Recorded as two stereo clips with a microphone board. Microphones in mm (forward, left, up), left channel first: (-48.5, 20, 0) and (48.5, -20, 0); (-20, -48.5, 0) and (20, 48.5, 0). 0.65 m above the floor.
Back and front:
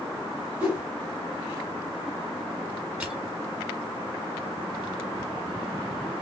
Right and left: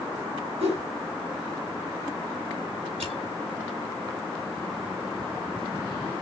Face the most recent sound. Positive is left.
turn(degrees=60)